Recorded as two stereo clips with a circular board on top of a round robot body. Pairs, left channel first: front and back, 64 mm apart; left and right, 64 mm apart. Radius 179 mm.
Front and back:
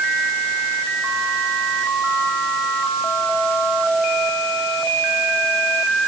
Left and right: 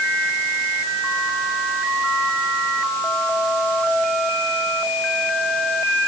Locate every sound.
Only background noise.